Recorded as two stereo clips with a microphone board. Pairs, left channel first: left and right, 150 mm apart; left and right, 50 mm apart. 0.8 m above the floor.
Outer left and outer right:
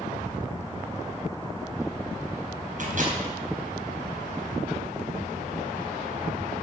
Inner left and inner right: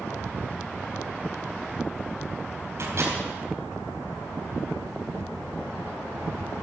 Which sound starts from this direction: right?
A microwave, at 2.8 s.